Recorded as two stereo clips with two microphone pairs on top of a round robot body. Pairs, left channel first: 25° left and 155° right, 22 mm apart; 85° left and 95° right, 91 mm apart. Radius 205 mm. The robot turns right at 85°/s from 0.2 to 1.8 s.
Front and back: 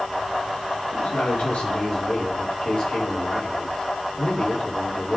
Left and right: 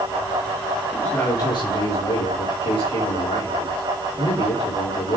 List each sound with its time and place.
0.9 s a man speaking: straight ahead, 4.5 m; by 5.2 s 75° left, 4.5 m